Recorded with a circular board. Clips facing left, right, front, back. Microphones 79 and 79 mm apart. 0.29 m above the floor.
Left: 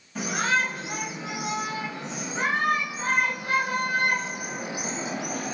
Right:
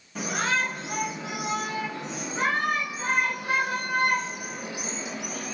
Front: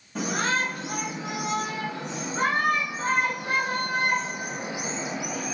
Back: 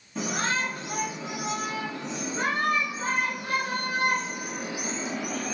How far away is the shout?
About 3 m.